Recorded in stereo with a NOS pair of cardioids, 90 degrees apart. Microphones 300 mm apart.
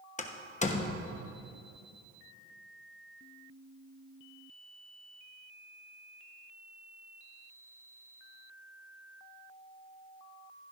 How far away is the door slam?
About 1.0 m.